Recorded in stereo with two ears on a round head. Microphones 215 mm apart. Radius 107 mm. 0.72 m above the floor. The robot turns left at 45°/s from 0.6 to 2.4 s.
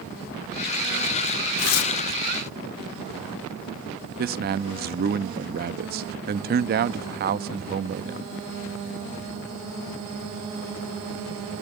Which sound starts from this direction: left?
Tearing paper, at 1.6 s.